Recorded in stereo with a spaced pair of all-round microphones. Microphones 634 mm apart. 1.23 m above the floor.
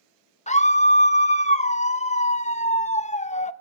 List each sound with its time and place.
0.5 s a scream: 10° left (ahead or behind), 1.0 m